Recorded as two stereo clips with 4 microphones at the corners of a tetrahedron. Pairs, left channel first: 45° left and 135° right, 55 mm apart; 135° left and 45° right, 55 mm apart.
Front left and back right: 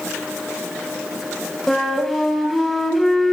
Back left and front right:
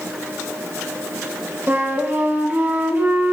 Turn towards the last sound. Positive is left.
turn(degrees=-40)